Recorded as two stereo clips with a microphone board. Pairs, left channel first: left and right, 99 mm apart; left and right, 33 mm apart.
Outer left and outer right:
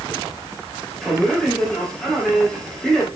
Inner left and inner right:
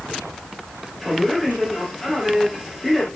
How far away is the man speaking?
About 4 m.